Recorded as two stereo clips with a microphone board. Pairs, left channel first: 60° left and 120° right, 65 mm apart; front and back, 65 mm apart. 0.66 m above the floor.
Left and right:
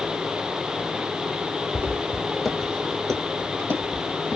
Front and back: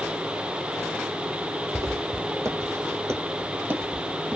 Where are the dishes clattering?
I don't hear dishes clattering.